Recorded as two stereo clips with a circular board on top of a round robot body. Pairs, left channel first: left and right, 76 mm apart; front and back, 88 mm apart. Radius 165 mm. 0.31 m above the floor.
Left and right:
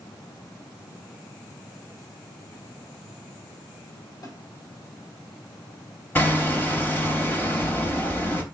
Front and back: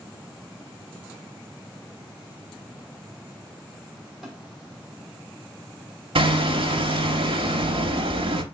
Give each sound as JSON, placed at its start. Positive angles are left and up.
{"t": 4.2, "sound": "a snare drum", "azimuth_deg": 95, "distance_m": 1.8}
{"t": 6.2, "sound": "hammering", "azimuth_deg": 155, "distance_m": 0.6}